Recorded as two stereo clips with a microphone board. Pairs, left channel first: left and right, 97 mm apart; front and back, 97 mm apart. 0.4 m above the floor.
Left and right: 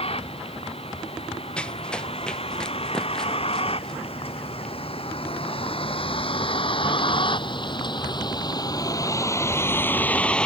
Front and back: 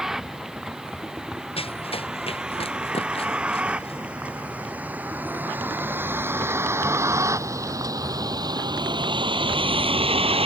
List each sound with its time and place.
0.0 s a vehicle: 95° left; by 10.5 s 170° left
1.6 s running footsteps: 10° left; by 4.7 s 5° left